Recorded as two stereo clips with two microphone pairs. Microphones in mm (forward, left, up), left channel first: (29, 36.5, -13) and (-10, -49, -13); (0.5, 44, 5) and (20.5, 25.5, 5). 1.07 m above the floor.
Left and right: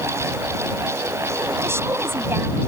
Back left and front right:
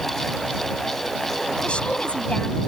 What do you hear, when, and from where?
1.6 s a woman speaking: straight behind